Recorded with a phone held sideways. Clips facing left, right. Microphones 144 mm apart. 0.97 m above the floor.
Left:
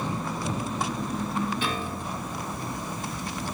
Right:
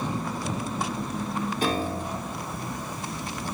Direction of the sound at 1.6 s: 40° right (ahead or behind).